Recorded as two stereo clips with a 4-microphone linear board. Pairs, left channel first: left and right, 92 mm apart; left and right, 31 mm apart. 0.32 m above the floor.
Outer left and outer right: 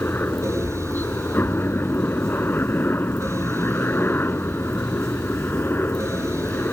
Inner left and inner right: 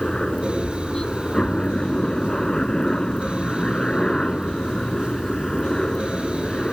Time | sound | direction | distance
0.0 | a helicopter | 25° left (ahead or behind) | ?